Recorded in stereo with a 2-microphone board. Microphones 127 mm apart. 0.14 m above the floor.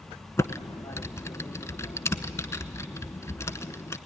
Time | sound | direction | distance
0.4 | typing on a keyboard | 25° left (ahead or behind) | 0.8 m